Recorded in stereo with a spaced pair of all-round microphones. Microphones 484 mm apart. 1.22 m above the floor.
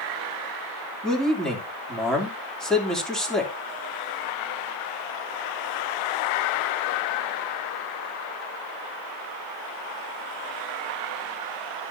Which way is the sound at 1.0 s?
Centre (ahead or behind).